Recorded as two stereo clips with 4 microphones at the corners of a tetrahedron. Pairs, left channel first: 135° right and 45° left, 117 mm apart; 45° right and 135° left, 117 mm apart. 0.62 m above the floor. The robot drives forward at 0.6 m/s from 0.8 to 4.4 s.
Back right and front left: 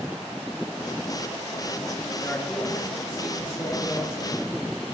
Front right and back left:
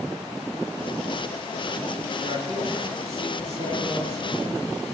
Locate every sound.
2.2 s a man speaking: 150° left, 7.5 m; by 4.5 s 155° left, 8.5 m